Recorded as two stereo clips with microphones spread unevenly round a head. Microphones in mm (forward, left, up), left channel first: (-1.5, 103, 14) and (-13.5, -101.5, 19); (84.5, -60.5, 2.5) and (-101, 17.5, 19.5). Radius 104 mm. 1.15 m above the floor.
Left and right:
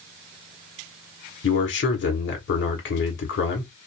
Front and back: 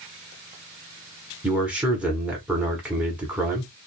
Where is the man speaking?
70° left, 1.2 m.